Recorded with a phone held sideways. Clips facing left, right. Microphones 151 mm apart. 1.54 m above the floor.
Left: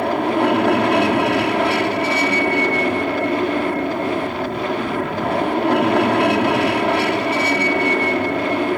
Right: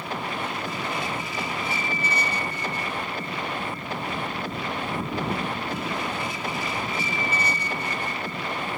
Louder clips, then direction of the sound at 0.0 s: Left 14 dB; 70° left (ahead or behind).